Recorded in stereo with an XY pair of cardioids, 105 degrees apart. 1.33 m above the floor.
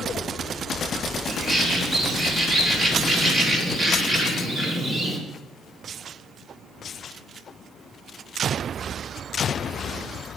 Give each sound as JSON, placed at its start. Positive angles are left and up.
{"t": 1.3, "sound": "a bird", "azimuth_deg": -30, "distance_m": 2.0}